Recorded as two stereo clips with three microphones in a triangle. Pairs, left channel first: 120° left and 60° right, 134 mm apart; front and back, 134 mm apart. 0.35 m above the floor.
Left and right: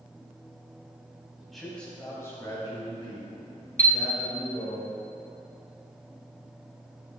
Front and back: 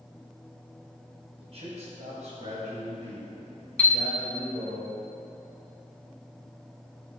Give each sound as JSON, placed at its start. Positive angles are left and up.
{"t": 1.4, "sound": "a man speaking", "azimuth_deg": -145, "distance_m": 2.5}
{"t": 3.8, "sound": "a chime", "azimuth_deg": -80, "distance_m": 1.0}